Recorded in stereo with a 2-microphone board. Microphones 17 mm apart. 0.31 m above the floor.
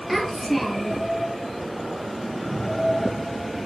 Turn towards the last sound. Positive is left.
turn(degrees=5)  # may be behind; listen again after turning